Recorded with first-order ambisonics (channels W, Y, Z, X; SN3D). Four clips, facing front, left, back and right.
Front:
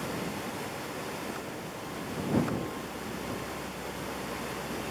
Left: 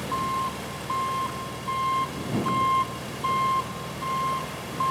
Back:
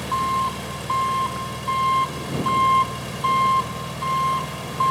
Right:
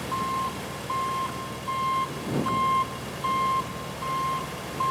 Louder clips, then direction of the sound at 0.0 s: Left 1 dB, back 13 dB; 175° left.